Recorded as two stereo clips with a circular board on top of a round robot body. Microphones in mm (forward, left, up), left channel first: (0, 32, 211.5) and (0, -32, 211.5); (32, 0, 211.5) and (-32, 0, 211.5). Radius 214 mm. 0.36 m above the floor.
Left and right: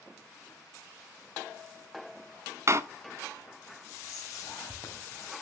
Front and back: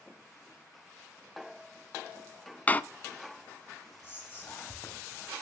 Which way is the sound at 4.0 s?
45° left.